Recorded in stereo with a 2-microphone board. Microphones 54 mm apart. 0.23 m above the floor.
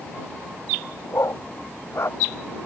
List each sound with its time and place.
1.1 s a dog barking: 65° left (ahead or behind); by 2.2 s 60° left (ahead or behind)